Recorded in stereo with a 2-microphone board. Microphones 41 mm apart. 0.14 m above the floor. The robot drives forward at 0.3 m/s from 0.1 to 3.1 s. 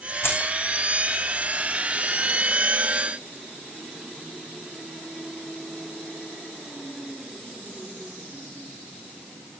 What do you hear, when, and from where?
0.2 s keys jangling: 70° left (ahead or behind), 5.5 m